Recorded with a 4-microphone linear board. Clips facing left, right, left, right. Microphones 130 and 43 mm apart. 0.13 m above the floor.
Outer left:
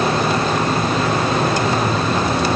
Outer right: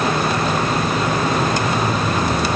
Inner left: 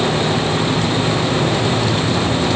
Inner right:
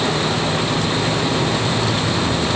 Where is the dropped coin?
I don't hear a dropped coin.